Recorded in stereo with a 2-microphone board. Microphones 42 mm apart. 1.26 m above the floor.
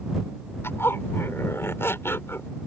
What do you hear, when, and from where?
0.6 s a zipper: 70° left (ahead or behind)